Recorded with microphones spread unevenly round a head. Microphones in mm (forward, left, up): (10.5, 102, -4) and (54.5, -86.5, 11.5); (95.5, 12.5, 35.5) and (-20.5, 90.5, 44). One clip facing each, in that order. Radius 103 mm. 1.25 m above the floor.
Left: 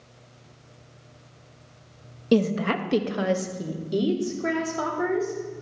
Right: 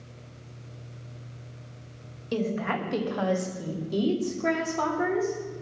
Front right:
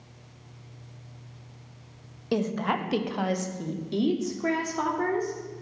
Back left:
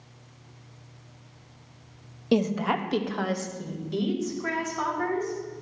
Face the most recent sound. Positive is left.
turn(degrees=15)